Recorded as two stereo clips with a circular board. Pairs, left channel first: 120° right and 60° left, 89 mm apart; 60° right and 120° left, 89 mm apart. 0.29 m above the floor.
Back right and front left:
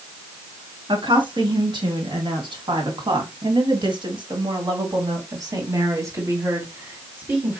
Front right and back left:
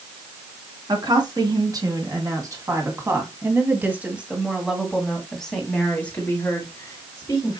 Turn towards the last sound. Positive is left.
turn(degrees=-10)